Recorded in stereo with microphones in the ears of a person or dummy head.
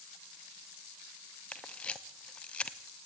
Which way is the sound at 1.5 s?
5° left (ahead or behind).